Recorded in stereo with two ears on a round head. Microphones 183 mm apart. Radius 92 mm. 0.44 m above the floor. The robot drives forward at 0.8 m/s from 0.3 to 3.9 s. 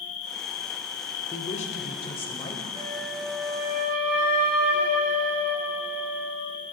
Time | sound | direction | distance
0.0 | an insect | 60° left (ahead or behind) | 1.4 m
1.3 | a woman speaking | 35° left (ahead or behind) | 1.2 m
2.7 | a flute | 65° right (ahead or behind) | 4.5 m